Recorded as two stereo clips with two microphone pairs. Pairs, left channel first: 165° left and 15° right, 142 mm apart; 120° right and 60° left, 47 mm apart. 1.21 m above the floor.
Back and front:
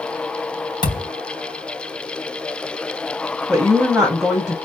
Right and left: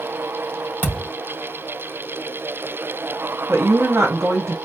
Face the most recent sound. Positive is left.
turn(degrees=70)